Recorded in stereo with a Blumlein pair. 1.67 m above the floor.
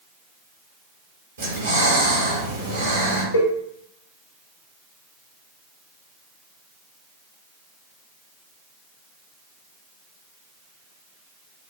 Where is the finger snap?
No finger snap in this recording.